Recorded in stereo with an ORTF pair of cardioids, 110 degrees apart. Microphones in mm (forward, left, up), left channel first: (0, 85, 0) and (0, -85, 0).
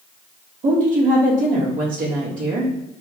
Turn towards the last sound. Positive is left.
turn(degrees=-55)